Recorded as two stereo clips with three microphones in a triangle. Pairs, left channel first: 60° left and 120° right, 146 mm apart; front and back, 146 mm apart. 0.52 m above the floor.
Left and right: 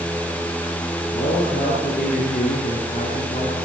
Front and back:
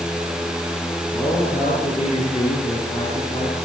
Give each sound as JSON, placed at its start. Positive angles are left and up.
{"t": 1.1, "sound": "a man speaking", "azimuth_deg": 50, "distance_m": 9.0}